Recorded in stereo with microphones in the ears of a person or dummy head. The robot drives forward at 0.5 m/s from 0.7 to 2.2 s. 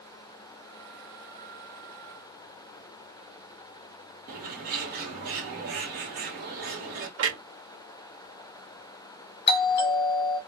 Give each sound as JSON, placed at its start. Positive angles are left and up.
{"t": 4.3, "sound": "a bird", "side_deg": -40, "distance_m": 0.8}
{"t": 7.2, "sound": "a clunk", "side_deg": -85, "distance_m": 1.2}
{"t": 9.5, "sound": "a doorbell", "side_deg": 40, "distance_m": 1.0}